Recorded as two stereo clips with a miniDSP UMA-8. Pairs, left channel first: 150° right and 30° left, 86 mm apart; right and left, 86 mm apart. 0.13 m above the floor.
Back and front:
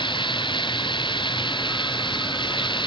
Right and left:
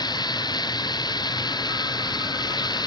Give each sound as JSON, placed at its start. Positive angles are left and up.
{"t": 0.0, "sound": "running water", "azimuth_deg": -125}